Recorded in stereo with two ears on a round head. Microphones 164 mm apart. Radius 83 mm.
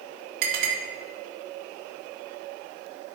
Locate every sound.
0.4 s a clink: 60° right (ahead or behind), 1.6 m